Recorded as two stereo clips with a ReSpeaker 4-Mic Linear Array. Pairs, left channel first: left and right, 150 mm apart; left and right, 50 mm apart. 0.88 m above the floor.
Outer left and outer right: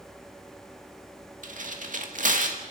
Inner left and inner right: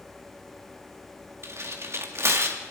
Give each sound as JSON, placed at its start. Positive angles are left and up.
{"t": 1.4, "sound": "tearing paper", "side_deg": -60, "distance_m": 1.9}